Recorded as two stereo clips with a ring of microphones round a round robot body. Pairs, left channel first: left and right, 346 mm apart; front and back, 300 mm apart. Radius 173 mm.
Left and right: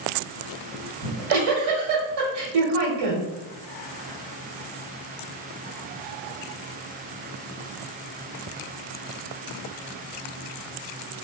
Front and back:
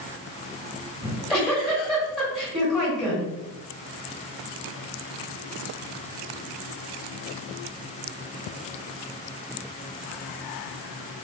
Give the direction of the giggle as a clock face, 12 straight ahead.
3 o'clock.